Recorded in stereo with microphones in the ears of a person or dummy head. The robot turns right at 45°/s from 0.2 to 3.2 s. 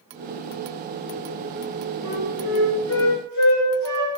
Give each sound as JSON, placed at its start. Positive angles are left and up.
{"t": 2.0, "sound": "a flute", "azimuth_deg": 55, "distance_m": 6.5}